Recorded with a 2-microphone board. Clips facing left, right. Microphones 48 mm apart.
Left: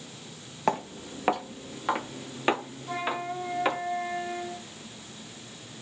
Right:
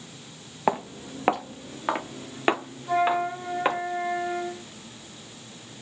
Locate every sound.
0.7 s footsteps: 10° right (ahead or behind), 0.8 m; by 3.8 s 20° right (ahead or behind), 2.5 m
2.9 s a flute: 25° right (ahead or behind), 1.9 m